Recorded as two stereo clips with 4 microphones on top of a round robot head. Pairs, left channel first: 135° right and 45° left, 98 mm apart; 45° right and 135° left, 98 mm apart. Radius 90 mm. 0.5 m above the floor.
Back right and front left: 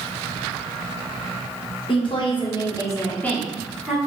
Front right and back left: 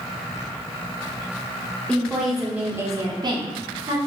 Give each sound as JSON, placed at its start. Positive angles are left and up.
{"t": 1.9, "sound": "a woman speaking", "azimuth_deg": -125, "distance_m": 1.2}